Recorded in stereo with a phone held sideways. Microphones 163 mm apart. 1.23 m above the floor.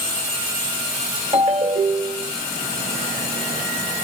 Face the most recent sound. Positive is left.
turn(degrees=-40)  # may be behind; listen again after turning